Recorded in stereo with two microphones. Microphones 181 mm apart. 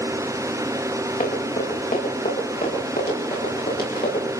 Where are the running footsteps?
50° left (ahead or behind), 10 m; by 4.2 s 55° left (ahead or behind), 14.5 m.